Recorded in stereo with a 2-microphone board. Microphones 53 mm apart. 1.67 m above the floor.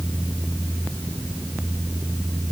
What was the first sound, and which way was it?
Only background noise.